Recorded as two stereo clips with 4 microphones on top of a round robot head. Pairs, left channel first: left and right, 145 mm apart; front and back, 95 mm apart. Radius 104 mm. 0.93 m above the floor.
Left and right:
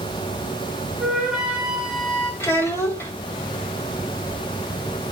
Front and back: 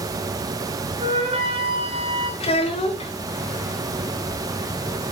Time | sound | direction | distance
1.0 | a flute | 175° right | 1.8 m
2.4 | a child speaking | 15° left | 1.4 m